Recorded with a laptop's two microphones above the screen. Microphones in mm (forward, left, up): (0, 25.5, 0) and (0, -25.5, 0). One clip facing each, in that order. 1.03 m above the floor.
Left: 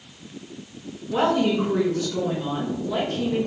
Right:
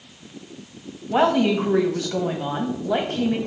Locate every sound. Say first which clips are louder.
1.1 s a woman speaking: right 2 dB; 60° right (ahead or behind), 1.1 m